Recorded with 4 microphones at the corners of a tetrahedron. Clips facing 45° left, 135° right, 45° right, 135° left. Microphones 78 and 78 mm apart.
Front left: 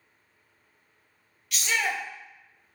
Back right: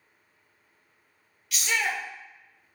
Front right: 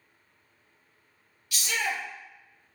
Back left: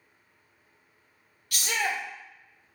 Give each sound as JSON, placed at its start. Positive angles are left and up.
{"t": 1.5, "sound": "a shout", "azimuth_deg": 135, "distance_m": 0.7}